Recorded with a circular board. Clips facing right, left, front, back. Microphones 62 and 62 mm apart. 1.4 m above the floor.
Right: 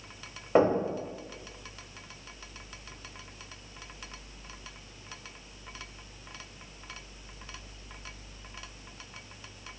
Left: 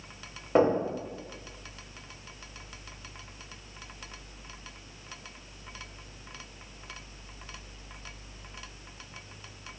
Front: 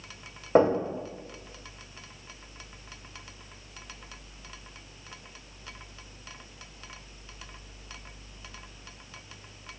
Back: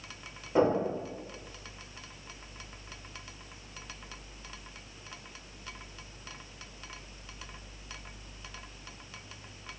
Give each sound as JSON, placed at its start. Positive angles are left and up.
{"t": 0.6, "sound": "knocking", "azimuth_deg": -5, "distance_m": 1.2}